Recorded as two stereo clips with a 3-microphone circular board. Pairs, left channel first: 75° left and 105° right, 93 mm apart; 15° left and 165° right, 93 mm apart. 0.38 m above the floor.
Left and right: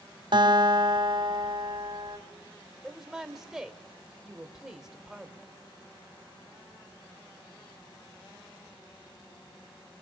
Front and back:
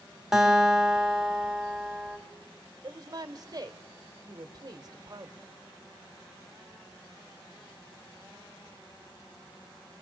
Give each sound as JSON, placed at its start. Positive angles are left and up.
{"t": 0.3, "sound": "a guitar", "azimuth_deg": -80, "distance_m": 2.5}
{"t": 2.8, "sound": "a woman speaking", "azimuth_deg": 170, "distance_m": 1.2}